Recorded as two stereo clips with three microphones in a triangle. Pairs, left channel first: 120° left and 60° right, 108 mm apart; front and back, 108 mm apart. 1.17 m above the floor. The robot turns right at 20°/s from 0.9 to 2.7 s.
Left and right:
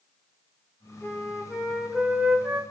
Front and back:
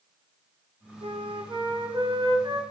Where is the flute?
165° right, 0.6 m; by 2.6 s 130° right, 0.6 m.